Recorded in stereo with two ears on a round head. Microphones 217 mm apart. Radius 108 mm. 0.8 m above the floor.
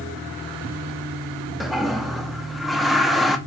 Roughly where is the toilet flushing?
Centre.